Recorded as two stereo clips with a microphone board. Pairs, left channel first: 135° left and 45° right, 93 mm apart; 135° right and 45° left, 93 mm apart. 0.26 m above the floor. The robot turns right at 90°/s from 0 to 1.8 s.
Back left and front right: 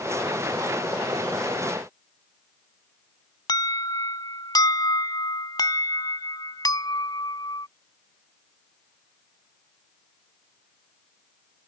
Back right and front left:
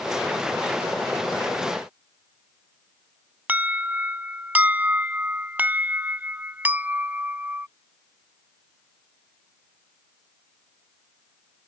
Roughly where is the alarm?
Left.